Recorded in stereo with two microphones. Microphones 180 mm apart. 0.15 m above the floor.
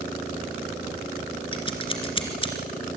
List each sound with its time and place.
1.5 s scissors: 30° left (ahead or behind), 2 m